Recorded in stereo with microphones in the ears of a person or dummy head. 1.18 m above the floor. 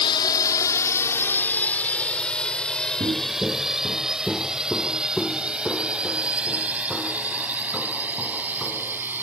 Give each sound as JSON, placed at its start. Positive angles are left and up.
{"t": 0.0, "sound": "a drone", "side_deg": 25}
{"t": 3.0, "sound": "footsteps", "side_deg": -15}